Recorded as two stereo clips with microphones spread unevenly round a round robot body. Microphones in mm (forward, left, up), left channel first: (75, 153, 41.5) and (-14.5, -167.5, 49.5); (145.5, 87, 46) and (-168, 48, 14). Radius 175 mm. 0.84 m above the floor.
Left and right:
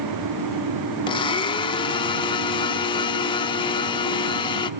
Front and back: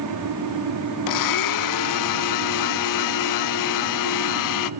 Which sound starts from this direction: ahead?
A blender, at 1.1 s.